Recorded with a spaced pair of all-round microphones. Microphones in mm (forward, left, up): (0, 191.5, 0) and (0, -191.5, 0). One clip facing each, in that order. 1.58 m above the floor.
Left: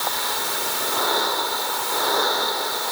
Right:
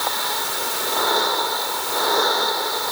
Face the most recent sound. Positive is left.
No sound to turn to.